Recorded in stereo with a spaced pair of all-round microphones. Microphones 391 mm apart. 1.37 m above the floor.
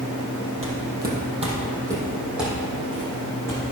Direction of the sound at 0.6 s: 35° right (ahead or behind).